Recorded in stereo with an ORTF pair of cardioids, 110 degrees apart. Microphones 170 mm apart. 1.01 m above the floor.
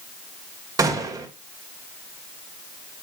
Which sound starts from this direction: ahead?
A gunshot, at 0.8 s.